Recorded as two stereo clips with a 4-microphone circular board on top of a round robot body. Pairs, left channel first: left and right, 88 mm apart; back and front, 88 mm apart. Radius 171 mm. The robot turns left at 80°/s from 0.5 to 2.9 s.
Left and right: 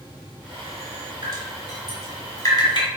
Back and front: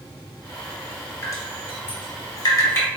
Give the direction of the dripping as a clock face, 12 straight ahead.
4 o'clock.